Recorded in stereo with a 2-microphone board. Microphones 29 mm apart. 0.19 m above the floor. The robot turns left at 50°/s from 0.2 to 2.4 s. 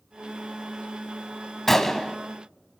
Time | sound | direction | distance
1.7 | a gunshot | 10° left (ahead or behind) | 0.8 m